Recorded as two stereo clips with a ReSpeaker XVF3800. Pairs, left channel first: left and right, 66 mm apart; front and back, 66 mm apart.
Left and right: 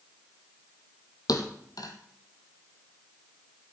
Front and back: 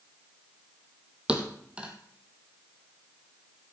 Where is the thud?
105° left, 1.4 m.